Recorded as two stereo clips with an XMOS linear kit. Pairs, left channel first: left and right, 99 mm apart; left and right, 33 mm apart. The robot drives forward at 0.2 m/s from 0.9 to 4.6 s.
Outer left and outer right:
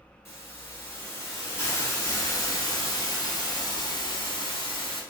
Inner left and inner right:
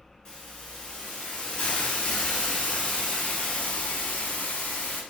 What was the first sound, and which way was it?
A hiss, 30° left (ahead or behind).